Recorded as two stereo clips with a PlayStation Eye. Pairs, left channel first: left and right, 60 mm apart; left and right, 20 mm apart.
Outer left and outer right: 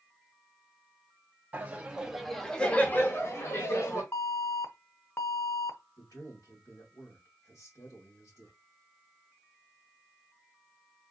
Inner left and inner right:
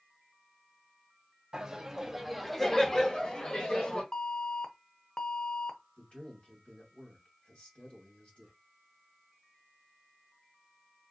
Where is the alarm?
45° left (ahead or behind), 0.7 m.